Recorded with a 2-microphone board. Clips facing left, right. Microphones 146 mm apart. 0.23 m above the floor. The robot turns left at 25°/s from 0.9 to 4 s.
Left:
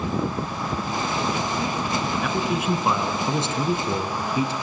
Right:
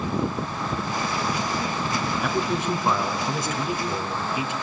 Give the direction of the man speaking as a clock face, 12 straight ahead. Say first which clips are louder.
Right 1 dB; 6 o'clock.